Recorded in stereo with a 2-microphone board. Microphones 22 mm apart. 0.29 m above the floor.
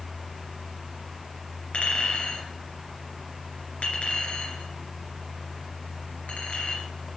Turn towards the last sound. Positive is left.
turn(degrees=75)  # may be behind; listen again after turning